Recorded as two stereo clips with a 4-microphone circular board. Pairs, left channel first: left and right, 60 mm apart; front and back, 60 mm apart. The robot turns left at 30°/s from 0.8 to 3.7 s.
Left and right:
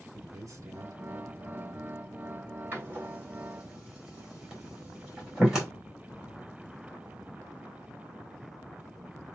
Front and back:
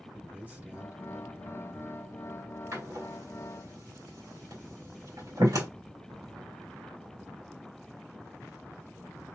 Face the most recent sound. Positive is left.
turn(degrees=-175)